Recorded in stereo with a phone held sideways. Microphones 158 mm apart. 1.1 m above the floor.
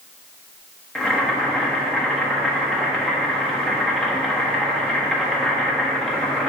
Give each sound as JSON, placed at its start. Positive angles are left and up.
{"t": 0.9, "sound": "boiling", "side_deg": 5, "distance_m": 1.2}